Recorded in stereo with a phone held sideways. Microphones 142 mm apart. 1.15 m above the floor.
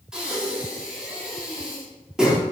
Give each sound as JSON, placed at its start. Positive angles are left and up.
{"t": 0.1, "sound": "breathing", "side_deg": -5, "distance_m": 3.5}